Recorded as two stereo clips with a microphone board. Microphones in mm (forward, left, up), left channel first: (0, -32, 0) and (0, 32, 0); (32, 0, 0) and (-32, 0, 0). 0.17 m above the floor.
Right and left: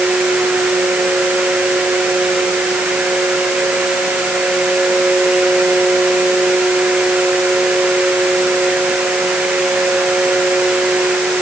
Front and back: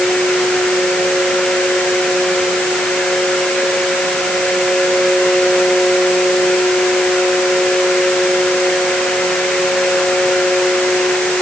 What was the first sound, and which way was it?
Only background noise.